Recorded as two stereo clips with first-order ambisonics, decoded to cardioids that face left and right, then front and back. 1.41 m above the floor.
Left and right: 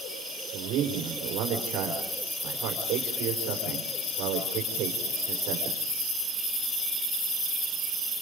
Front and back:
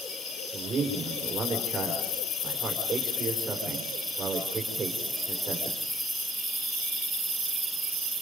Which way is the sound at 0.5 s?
125° right.